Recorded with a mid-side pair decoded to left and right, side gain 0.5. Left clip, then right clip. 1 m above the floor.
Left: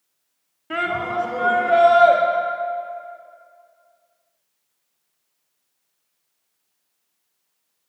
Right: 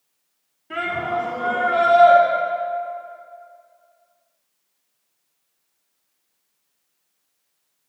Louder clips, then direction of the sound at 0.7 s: Left 1 dB; 50° left.